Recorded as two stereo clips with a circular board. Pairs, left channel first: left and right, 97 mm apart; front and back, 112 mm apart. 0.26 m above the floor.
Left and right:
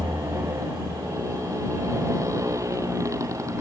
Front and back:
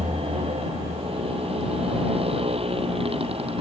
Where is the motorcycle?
150° right.